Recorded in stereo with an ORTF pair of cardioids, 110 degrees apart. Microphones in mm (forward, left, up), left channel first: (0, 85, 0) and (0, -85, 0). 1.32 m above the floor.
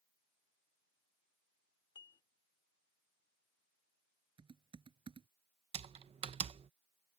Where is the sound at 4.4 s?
30° right.